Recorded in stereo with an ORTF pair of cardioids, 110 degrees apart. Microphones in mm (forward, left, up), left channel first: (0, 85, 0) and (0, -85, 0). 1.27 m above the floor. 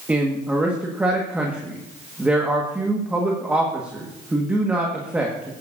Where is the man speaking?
10° right, 1.6 m.